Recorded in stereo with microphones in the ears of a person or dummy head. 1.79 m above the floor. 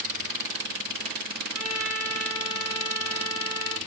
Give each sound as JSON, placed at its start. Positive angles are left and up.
{"t": 1.5, "sound": "a trumpet", "side_deg": -25, "distance_m": 2.5}